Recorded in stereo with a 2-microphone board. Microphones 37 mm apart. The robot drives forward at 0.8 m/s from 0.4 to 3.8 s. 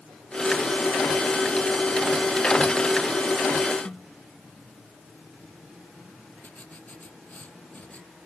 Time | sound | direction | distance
3.9 | a snare drum | 30° left (ahead or behind) | ?
6.4 | writing | 45° left (ahead or behind) | ?